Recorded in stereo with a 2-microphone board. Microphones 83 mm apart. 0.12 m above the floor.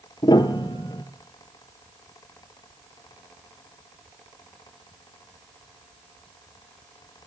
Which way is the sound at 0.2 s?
70° left (ahead or behind).